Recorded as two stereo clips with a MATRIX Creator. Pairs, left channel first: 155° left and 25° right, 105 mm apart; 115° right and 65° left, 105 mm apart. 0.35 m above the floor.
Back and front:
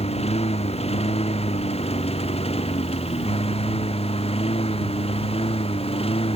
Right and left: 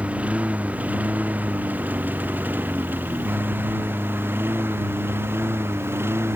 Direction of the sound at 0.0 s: 145° left.